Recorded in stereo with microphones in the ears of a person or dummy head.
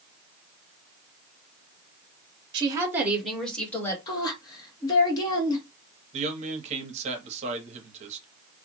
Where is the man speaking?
35° right (ahead or behind), 0.8 m.